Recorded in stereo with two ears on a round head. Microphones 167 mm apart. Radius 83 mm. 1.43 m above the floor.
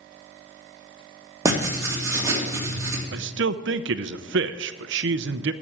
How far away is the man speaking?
About 0.7 m.